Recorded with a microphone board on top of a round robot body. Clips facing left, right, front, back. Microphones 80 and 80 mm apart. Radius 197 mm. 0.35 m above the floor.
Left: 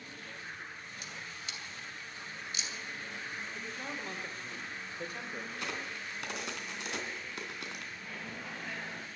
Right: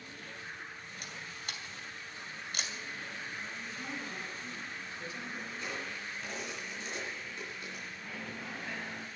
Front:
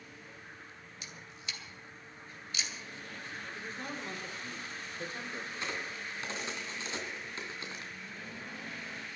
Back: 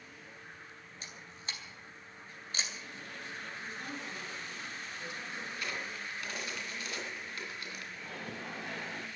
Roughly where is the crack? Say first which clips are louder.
Even, even; ahead left.